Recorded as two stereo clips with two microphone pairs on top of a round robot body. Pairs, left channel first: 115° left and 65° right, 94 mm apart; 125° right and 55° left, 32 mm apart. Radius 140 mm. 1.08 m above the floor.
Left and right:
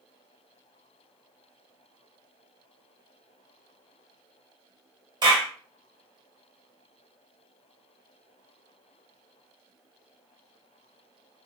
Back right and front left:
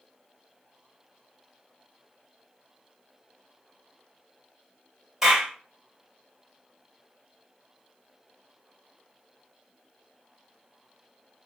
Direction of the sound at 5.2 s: 25° right.